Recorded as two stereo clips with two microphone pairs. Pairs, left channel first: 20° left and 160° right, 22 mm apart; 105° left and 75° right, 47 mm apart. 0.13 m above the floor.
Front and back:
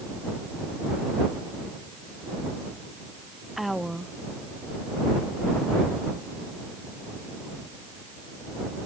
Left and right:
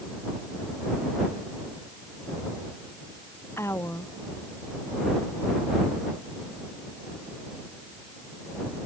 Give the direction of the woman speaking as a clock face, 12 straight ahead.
8 o'clock.